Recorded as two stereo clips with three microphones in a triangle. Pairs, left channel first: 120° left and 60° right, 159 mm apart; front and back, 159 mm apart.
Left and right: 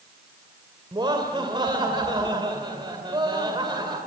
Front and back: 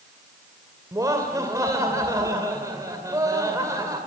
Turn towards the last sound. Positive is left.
turn(degrees=-115)